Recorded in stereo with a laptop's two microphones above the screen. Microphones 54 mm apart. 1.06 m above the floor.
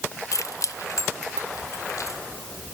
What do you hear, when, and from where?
0.3 s keys jangling: 70° left (ahead or behind), 0.6 m